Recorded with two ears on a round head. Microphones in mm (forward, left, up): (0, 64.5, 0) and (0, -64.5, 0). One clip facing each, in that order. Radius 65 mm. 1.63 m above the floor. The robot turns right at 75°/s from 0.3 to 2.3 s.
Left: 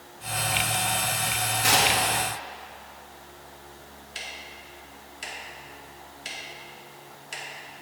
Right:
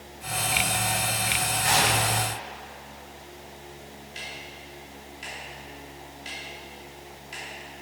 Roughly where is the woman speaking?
No woman speaking in this recording.